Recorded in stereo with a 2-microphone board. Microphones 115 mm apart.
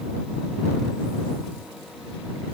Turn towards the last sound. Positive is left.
No sound to turn to.